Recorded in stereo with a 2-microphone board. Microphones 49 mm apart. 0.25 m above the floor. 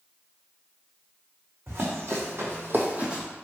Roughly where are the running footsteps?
Right.